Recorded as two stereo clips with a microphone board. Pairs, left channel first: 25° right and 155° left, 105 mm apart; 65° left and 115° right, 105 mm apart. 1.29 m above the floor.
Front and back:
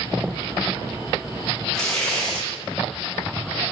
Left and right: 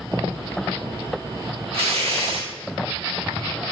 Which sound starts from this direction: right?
Tearing paper, at 1.7 s.